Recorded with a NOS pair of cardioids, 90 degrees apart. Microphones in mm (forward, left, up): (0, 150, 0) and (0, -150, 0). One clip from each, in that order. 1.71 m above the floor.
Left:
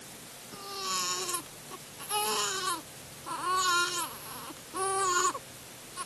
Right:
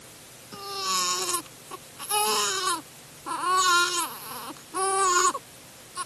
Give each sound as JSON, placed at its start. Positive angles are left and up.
{"t": 0.5, "sound": "a baby crying", "azimuth_deg": -45}